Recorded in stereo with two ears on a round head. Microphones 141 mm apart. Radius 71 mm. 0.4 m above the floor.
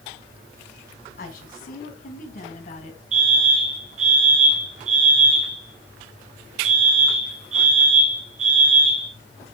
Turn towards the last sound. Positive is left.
turn(degrees=-45)  # may be behind; listen again after turning